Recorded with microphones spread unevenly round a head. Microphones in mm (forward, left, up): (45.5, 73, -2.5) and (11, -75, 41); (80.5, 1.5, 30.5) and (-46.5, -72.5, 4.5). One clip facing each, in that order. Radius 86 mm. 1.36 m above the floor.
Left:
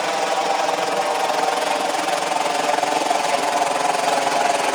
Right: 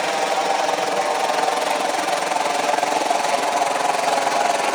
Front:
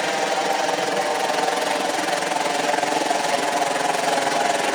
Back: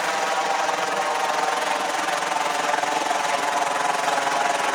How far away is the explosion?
I don't hear an explosion.